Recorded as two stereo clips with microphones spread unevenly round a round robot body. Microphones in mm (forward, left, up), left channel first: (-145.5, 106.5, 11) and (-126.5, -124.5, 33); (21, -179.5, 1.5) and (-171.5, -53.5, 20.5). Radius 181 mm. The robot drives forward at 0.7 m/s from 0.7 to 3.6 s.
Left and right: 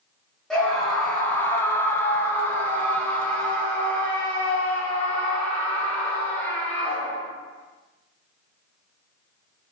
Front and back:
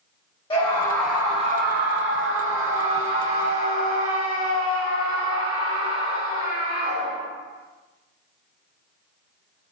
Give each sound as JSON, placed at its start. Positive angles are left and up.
{"t": 0.5, "sound": "a scream", "azimuth_deg": 15, "distance_m": 0.6}